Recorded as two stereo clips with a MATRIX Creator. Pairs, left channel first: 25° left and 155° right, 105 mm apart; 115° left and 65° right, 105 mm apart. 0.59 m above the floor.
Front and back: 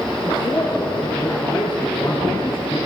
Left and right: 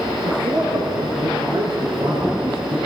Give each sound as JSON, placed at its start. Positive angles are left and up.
{"t": 0.2, "sound": "a man speaking", "azimuth_deg": -45, "distance_m": 6.0}